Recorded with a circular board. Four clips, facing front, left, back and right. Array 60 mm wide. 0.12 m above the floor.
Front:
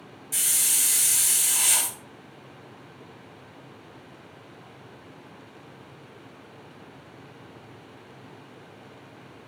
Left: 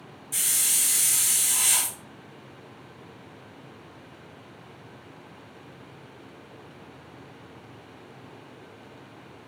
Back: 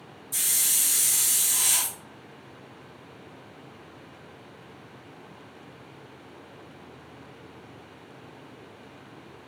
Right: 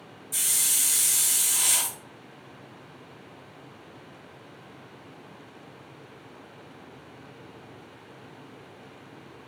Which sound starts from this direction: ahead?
A hiss, at 0.3 s.